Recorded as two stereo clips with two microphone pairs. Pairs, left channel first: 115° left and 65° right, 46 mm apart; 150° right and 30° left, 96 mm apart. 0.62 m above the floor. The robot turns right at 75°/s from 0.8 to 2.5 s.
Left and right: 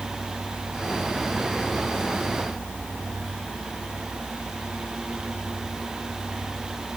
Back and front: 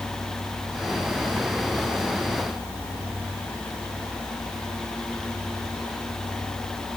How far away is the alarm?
I don't hear an alarm.